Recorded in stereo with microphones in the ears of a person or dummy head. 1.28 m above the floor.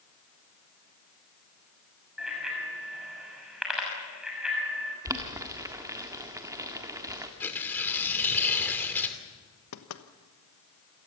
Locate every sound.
2.2 s a bicycle bell: 5° right (ahead or behind), 6 m
5.0 s boiling: 15° right (ahead or behind), 1.6 m
7.4 s tearing paper: 10° left (ahead or behind), 2.5 m
9.7 s knocking: 85° left, 1.2 m